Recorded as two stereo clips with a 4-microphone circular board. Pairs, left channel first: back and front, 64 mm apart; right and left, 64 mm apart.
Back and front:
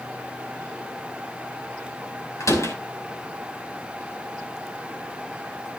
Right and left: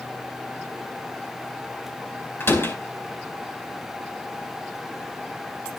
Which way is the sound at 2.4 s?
145° right.